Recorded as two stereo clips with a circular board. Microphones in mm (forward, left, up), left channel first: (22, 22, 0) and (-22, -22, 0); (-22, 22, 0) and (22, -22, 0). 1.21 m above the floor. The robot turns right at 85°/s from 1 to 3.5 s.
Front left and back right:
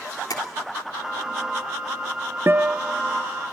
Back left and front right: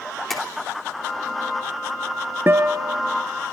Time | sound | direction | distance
0.3 | tapping | 45° left | 3 m
2.5 | a guitar | 90° right | 1.0 m